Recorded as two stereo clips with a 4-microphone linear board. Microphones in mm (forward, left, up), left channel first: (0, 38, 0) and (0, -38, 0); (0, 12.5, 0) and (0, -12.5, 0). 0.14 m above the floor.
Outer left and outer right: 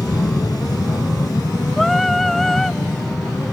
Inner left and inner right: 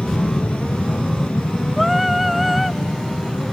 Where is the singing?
5° left (ahead or behind).